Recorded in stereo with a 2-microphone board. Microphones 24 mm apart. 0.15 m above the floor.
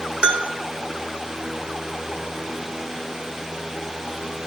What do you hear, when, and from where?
0.2 s a bell: 45° right (ahead or behind), 3 m